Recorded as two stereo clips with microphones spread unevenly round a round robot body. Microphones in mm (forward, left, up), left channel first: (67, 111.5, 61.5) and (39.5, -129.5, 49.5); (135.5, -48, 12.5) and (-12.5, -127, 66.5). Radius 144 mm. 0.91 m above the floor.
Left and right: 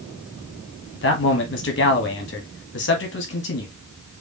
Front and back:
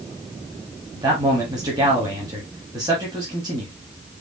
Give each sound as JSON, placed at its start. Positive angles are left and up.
{"t": 0.9, "sound": "a man speaking", "azimuth_deg": 130, "distance_m": 1.6}